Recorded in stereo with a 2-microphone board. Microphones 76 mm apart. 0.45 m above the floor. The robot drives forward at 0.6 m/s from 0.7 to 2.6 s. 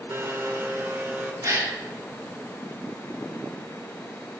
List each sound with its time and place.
0.1 s a blender: 35° right (ahead or behind), 0.6 m; by 1.3 s 25° right (ahead or behind), 0.9 m
1.4 s a gasp: 45° right (ahead or behind), 1.5 m; by 1.8 s 40° right (ahead or behind), 1.7 m